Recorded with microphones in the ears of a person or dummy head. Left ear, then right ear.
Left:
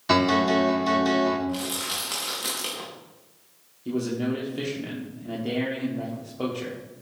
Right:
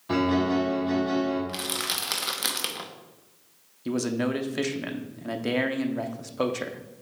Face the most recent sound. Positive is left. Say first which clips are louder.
# right 1 dB
turn(degrees=-55)  # may be behind; listen again after turning